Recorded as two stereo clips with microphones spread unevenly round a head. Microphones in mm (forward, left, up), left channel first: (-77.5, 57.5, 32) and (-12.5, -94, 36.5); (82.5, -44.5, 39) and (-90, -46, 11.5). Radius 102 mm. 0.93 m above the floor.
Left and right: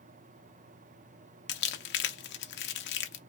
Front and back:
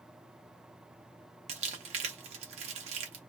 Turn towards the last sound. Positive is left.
turn(degrees=115)